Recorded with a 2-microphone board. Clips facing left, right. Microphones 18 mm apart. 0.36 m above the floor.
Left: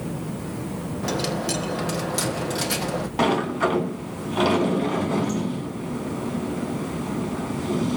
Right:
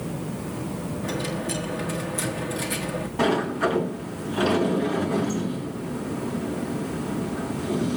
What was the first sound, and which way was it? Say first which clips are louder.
A dropped coin: left 4 dB; 65° left (ahead or behind).